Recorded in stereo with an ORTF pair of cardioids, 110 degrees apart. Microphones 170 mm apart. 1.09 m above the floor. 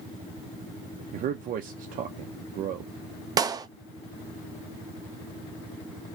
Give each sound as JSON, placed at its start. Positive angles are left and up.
{"t": 1.1, "sound": "a man speaking", "azimuth_deg": -55, "distance_m": 0.6}
{"t": 3.4, "sound": "a clap", "azimuth_deg": -20, "distance_m": 0.5}